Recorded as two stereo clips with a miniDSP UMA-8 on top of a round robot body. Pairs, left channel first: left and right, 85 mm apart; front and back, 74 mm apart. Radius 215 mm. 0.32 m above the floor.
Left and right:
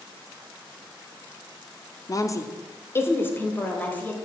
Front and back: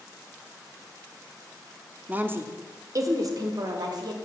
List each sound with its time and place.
2.1 s a woman speaking: 120° left, 1.1 m; by 4.2 s 160° left, 2.5 m